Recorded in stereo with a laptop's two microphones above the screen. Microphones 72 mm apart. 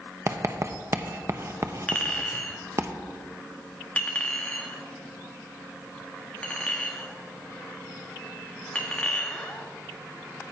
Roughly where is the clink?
Centre.